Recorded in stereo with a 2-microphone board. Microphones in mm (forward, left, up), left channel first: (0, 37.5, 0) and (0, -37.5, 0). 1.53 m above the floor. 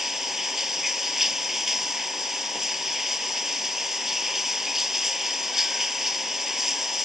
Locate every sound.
0.0 s running water: 5° right (ahead or behind)